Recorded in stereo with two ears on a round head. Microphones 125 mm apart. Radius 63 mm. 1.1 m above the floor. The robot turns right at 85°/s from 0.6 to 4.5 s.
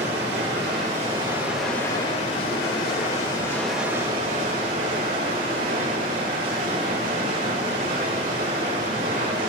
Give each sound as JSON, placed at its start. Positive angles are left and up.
{"t": 0.0, "sound": "running water", "azimuth_deg": -85, "distance_m": 3.0}